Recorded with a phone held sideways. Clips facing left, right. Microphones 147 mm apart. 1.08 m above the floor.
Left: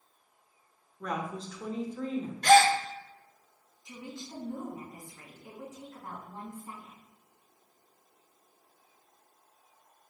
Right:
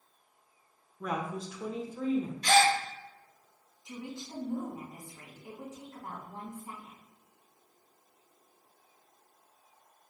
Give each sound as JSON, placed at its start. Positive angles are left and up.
{"t": 1.0, "sound": "a woman speaking", "side_deg": -5, "distance_m": 0.7}
{"t": 2.4, "sound": "a gasp", "side_deg": 60, "distance_m": 0.6}
{"t": 3.9, "sound": "a woman speaking", "side_deg": -20, "distance_m": 1.7}